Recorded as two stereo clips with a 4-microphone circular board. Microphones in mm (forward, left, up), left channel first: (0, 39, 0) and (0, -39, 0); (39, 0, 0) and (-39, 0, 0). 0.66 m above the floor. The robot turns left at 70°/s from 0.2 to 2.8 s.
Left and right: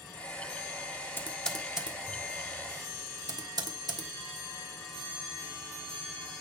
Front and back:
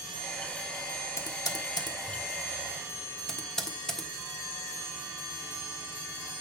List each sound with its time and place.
1.2 s typing on a keyboard: 35° left, 1.4 m; by 4.1 s 80° right, 1.4 m